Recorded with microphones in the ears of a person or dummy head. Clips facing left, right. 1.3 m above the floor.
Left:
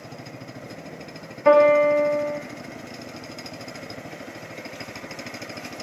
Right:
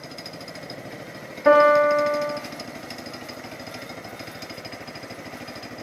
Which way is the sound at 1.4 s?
5° right (ahead or behind).